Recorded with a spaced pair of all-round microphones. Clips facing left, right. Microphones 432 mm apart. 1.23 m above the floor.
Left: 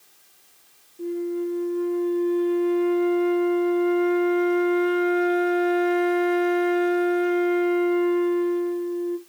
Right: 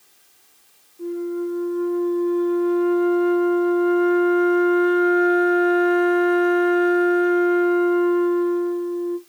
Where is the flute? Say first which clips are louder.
Right 1 dB; 45° left (ahead or behind), 0.7 m.